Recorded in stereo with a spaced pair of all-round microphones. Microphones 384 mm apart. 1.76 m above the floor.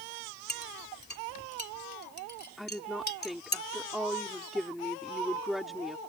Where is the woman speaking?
Centre (ahead or behind).